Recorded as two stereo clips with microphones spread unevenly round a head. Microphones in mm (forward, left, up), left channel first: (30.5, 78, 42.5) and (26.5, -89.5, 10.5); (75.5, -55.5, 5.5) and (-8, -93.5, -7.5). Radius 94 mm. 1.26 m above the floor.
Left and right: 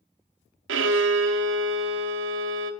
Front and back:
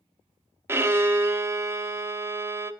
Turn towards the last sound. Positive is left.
turn(degrees=-90)